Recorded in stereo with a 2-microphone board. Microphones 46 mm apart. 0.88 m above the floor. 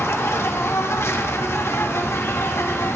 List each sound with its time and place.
0.0 s an insect: 65° left (ahead or behind), 1.3 m